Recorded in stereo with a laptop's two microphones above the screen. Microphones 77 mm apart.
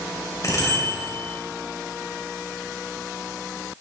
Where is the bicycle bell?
45° left (ahead or behind), 3.5 m.